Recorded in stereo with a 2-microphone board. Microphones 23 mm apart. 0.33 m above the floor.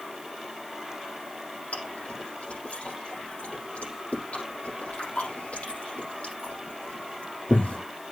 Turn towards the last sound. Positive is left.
turn(degrees=85)